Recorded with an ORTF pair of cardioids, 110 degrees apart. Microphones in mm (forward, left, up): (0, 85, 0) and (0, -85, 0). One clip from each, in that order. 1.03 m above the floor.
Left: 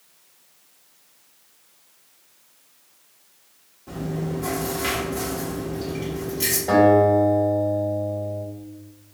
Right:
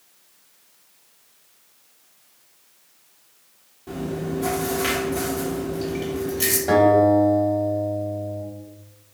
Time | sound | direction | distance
3.9 | chewing | 20° right | 1.2 m
6.7 | a guitar | 20° right | 1.6 m